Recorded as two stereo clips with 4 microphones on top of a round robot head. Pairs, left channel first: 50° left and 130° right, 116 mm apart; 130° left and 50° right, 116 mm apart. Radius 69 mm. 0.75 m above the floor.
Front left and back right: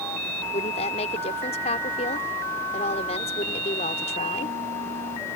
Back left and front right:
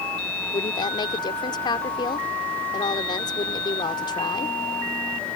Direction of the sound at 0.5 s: 80° left.